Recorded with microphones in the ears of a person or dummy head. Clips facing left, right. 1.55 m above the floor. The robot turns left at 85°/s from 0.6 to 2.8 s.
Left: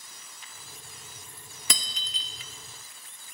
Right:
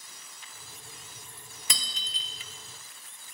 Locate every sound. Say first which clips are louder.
1.7 s breaking glass: left 4 dB; 55° left (ahead or behind), 2 m; by 2.3 s 60° left (ahead or behind), 2 m